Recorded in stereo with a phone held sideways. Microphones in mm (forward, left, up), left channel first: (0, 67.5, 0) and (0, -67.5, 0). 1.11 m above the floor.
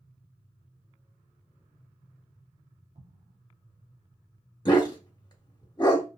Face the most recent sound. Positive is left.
turn(degrees=30)  # may be behind; listen again after turning